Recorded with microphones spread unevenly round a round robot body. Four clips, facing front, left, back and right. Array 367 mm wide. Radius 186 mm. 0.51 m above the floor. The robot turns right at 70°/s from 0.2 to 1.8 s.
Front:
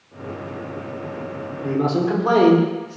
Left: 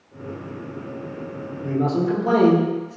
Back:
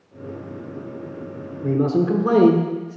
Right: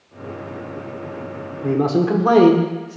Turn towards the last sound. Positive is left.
turn(degrees=-115)